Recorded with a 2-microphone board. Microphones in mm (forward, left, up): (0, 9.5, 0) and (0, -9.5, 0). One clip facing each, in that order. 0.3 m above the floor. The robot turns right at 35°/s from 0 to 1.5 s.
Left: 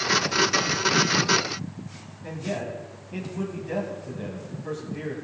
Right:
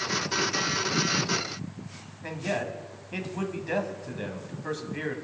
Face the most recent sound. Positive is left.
turn(degrees=-35)  # may be behind; listen again after turning